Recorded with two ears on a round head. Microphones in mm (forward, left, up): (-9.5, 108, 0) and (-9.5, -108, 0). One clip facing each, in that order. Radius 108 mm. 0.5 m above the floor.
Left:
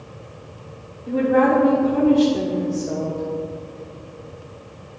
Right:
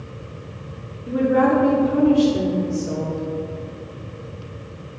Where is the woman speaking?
15° right (ahead or behind), 1.1 m.